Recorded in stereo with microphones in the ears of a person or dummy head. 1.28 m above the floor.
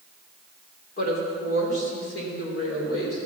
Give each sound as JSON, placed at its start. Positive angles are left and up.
{"t": 1.0, "sound": "a woman speaking", "side_deg": 55, "distance_m": 3.5}